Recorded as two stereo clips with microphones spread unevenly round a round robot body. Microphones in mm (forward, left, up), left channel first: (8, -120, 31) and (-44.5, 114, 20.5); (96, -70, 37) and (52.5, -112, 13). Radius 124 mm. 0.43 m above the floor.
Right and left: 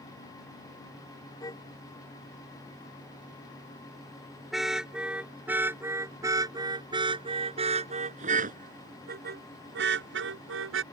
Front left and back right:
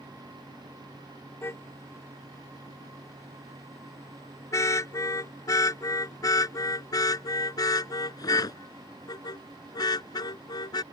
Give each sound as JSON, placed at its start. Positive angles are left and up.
{"t": 1.4, "sound": "a car horn", "azimuth_deg": 0}